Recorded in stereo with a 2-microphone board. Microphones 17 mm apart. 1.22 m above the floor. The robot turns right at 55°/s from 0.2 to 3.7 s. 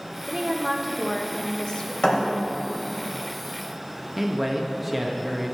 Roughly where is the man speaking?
Centre.